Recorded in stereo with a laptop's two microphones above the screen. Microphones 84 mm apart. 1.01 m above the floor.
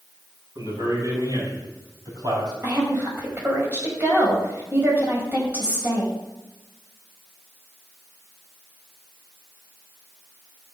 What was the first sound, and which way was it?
A man speaking, 40° right (ahead or behind).